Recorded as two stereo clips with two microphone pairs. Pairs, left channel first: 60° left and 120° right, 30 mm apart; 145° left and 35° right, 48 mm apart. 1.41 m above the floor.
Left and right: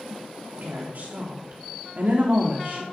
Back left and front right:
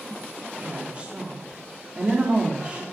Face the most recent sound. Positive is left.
turn(degrees=-100)